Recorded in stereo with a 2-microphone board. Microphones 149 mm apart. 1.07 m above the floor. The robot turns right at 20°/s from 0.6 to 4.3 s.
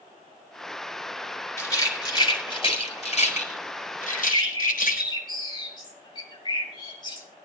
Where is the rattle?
20° left (ahead or behind), 4 m; by 5.0 s 75° left (ahead or behind), 4 m.